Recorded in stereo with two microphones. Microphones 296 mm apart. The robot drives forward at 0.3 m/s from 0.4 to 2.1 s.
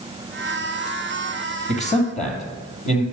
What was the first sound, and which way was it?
A man speaking, 25° left (ahead or behind).